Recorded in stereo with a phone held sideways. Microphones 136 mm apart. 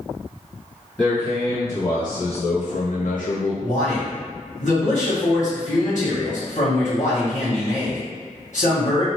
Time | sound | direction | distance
1.0 | a man speaking | centre (ahead or behind) | 1.1 m
3.6 | a man speaking | 60° left (ahead or behind) | 1.4 m